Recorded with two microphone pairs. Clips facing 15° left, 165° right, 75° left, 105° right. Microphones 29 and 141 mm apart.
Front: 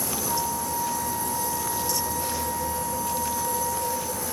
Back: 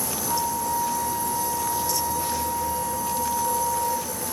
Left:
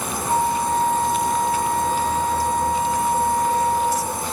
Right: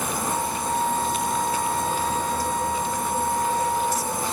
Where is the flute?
110° left, 1.8 m.